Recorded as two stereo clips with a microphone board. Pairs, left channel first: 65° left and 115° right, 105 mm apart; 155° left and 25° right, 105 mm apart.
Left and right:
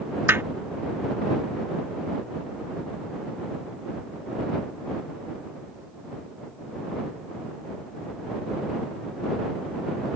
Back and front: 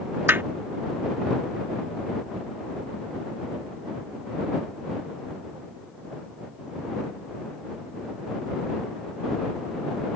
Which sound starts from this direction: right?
Hammering, at 0.3 s.